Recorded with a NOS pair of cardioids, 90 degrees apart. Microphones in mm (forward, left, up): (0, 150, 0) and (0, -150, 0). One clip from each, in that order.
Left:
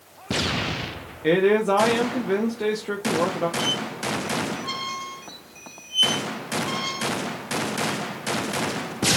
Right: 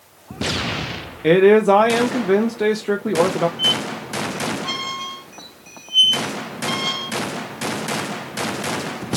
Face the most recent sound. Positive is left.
turn(degrees=-5)